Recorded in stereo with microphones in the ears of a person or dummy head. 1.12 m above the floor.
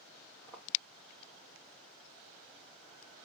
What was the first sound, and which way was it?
Footsteps, centre (ahead or behind).